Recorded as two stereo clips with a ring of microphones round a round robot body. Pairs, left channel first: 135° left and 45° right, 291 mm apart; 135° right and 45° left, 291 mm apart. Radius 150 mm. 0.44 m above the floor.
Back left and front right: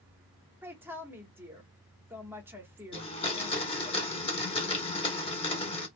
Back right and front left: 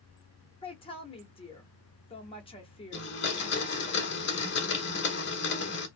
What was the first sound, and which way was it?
A woman speaking, 115° right.